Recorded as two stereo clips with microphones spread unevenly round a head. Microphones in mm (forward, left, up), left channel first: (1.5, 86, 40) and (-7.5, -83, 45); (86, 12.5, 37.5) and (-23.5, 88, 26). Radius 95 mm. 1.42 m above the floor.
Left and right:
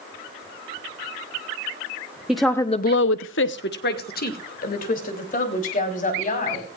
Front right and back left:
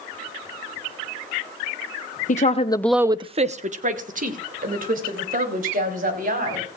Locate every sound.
2.3 s a woman speaking: 5° right, 0.9 m; by 6.7 s 135° left, 4.5 m